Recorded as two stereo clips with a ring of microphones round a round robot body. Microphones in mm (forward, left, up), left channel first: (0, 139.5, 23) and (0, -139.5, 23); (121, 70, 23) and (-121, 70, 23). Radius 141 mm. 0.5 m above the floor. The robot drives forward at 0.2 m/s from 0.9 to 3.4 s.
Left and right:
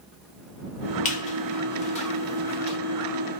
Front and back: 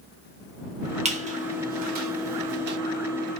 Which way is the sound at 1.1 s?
135° left.